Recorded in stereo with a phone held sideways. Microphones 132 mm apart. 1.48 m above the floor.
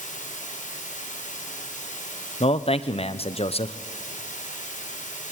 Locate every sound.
0.0 s running water: 85° left, 5 m
2.4 s a man speaking: 50° left (ahead or behind), 0.9 m